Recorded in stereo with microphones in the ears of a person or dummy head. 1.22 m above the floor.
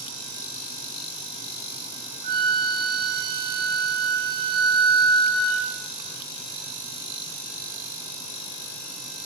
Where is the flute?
30° right (ahead or behind), 0.8 m.